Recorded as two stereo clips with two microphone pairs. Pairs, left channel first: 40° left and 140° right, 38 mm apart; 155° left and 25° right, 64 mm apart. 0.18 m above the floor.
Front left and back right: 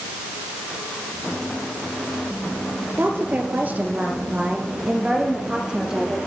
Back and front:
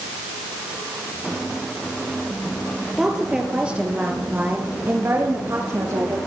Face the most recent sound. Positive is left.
turn(degrees=-65)